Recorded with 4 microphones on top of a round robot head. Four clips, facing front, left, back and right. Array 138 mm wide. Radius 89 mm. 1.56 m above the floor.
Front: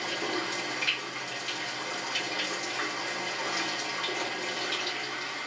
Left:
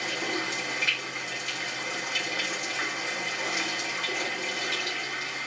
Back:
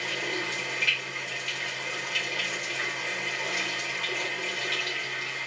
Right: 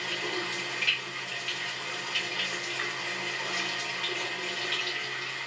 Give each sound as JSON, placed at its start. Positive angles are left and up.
{"t": 0.0, "sound": "running water", "azimuth_deg": 40, "distance_m": 1.8}